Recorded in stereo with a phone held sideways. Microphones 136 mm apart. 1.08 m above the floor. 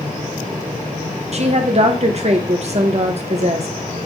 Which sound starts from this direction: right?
A woman speaking, at 1.3 s.